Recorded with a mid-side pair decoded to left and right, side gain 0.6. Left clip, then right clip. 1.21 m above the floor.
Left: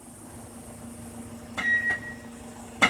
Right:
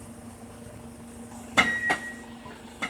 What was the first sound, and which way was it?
A microwave, 70° left.